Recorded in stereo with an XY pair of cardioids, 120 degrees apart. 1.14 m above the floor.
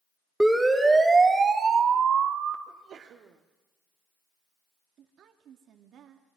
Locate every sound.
0.4 s a siren: straight ahead, 3 m; by 2.6 s 65° right, 3 m
2.7 s a sneeze: 55° right, 2.5 m
5.0 s a woman speaking: 60° right, 2.5 m